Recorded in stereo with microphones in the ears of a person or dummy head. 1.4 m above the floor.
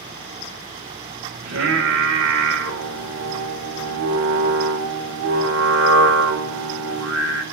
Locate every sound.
1.4 s singing: 65° right (ahead or behind), 1.9 m